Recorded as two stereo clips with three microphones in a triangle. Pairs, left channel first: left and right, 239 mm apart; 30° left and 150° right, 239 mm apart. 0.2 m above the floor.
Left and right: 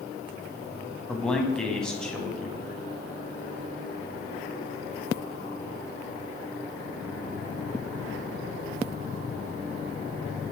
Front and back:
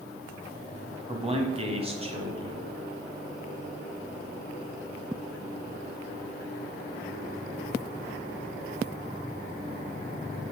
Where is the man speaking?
175° left, 1.2 m.